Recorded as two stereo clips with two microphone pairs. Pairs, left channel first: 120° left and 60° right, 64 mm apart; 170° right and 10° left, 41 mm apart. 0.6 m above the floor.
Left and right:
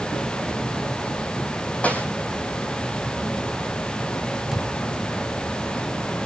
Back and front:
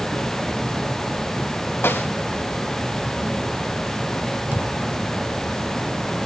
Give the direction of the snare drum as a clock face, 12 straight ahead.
6 o'clock.